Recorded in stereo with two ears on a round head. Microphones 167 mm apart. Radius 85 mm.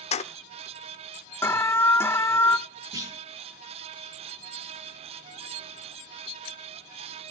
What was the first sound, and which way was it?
Keys jangling, 35° left (ahead or behind).